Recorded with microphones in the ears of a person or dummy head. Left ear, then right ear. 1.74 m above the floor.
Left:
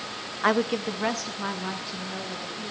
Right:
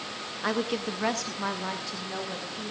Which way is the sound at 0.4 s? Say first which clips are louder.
Left 5 dB; 35° left (ahead or behind).